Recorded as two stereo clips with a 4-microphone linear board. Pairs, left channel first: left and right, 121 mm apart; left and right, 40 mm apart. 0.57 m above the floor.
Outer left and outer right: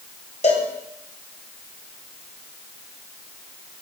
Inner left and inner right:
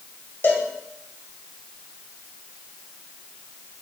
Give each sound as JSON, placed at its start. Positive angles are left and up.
{"t": 0.4, "sound": "a cowbell", "side_deg": 70, "distance_m": 1.9}